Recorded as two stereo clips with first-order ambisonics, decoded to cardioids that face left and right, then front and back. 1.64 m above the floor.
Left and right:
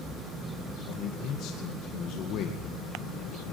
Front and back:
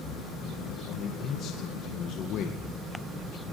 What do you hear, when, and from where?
0.9 s a man speaking: 50° left, 2 m